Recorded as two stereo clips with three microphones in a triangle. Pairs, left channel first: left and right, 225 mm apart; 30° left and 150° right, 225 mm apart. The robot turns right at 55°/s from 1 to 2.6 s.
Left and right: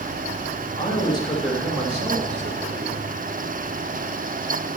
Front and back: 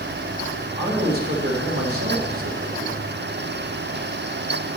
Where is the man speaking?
155° left, 2.5 m; by 3.0 s 115° right, 2.5 m.